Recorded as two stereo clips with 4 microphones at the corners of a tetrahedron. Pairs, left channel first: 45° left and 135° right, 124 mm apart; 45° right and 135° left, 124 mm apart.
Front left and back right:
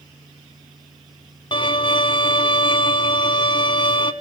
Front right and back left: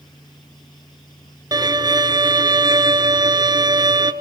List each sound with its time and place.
1.5 s a violin: 85° left, 1.2 m